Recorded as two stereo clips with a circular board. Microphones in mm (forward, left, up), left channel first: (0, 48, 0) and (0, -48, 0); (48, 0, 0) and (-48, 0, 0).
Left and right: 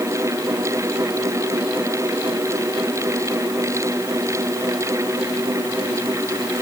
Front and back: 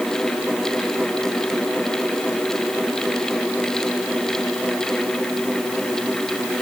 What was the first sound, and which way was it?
Only background noise.